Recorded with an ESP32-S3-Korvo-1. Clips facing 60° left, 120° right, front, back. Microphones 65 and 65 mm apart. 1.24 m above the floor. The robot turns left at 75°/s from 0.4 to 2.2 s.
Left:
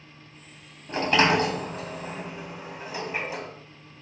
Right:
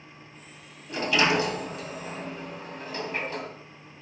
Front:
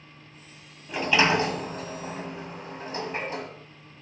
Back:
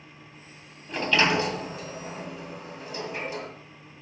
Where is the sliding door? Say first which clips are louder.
Left 3 dB, front 1 dB; 85° left, 1.4 m; by 3.5 s 10° right, 1.4 m.